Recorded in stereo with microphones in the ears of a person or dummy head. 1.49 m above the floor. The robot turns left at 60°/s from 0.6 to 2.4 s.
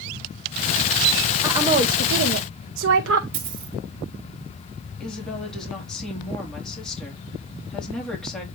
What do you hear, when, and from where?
1.4 s a woman speaking: 15° right, 1.0 m; by 3.2 s 75° right, 1.0 m
3.3 s a dropped coin: 50° right (ahead or behind), 2 m
5.0 s a woman speaking: 5° left (ahead or behind), 3 m